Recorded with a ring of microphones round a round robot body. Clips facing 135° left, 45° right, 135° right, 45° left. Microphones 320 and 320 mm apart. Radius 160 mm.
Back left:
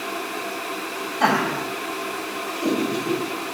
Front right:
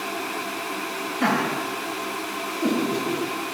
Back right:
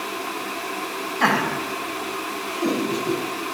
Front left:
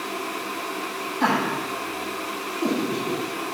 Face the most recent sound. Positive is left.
turn(degrees=180)